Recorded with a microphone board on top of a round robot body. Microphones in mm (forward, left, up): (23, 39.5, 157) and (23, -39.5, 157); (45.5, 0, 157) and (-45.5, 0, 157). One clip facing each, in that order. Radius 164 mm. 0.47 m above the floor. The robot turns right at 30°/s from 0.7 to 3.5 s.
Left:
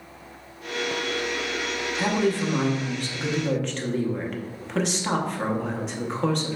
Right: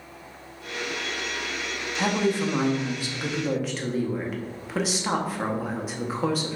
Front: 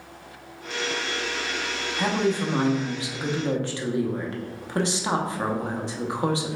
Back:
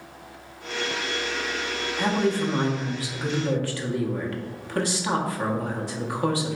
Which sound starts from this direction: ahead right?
A woman speaking, at 2.0 s.